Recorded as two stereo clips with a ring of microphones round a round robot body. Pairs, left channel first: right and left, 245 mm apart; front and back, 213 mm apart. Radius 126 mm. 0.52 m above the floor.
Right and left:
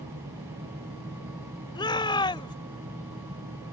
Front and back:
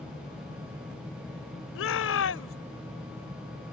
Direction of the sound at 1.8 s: 20° right.